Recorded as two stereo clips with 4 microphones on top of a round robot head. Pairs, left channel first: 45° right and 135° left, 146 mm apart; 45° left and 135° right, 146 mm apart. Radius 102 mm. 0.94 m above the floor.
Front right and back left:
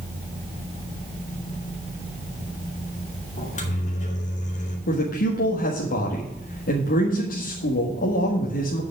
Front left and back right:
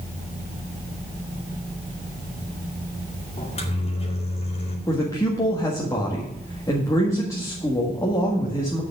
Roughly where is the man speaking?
Ahead right.